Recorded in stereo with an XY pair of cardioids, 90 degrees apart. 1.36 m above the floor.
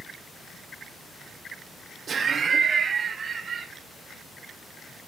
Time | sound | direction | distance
2.1 | laughter | 50° right | 0.5 m